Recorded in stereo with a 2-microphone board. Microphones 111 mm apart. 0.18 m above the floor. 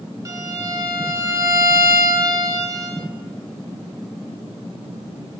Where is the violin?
30° right (ahead or behind), 0.8 m.